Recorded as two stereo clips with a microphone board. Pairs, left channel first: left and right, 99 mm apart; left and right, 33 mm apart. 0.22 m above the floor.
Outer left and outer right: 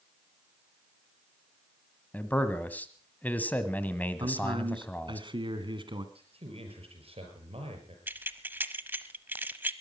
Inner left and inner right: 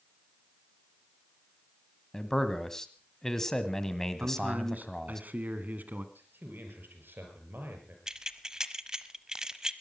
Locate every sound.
2.1 s a man speaking: 15° left (ahead or behind), 1.5 m
4.2 s a man speaking: 55° right (ahead or behind), 2 m
6.2 s a man speaking: 75° right (ahead or behind), 5.5 m
8.1 s keys jangling: 20° right (ahead or behind), 0.9 m